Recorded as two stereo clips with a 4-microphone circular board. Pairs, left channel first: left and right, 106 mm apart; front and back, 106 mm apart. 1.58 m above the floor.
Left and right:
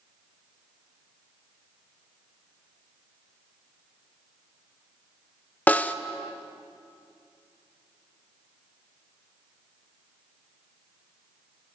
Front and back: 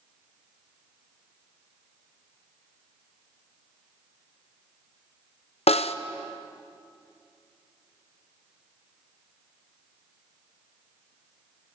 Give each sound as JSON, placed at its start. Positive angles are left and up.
{"t": 5.7, "sound": "a snare drum", "azimuth_deg": 15, "distance_m": 0.9}